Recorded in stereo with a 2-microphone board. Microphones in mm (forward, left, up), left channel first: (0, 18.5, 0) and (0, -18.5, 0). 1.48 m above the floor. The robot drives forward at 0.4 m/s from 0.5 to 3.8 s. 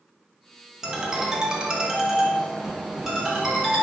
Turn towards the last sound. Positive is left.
turn(degrees=-5)  # may be behind; listen again after turning